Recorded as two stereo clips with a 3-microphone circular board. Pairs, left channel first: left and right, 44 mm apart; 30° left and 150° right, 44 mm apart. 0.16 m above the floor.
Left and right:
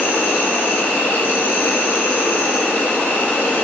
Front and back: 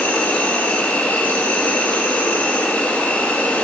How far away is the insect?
About 3 m.